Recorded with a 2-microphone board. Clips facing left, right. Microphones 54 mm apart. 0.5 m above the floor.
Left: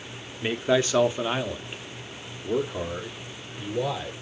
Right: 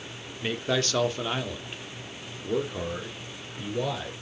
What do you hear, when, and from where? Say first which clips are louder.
0.4 s a man speaking: left 5 dB; 15° left (ahead or behind), 1.0 m; by 4.1 s 5° left (ahead or behind), 1.6 m